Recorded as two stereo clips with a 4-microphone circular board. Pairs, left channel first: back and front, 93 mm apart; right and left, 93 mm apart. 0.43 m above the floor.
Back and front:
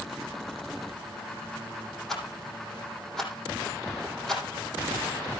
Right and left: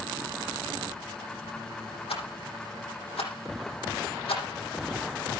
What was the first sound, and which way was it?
A rattle, 95° right.